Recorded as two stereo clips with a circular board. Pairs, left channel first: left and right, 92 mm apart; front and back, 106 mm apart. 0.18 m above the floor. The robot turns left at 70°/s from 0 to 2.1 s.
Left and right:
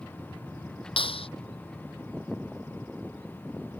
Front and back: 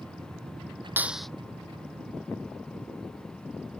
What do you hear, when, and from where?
1.0 s a clap: 110° left; by 1.3 s 85° left